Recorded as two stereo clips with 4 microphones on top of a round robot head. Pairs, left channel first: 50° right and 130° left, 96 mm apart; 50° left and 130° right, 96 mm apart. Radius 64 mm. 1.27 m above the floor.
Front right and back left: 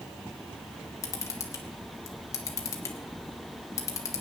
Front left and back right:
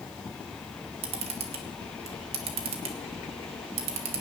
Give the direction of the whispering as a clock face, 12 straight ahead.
No whispering in this recording.